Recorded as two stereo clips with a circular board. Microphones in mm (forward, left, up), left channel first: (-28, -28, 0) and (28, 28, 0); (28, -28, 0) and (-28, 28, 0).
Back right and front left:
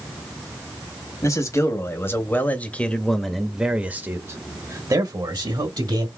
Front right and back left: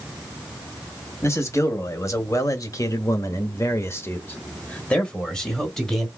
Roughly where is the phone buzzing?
I don't hear a phone buzzing.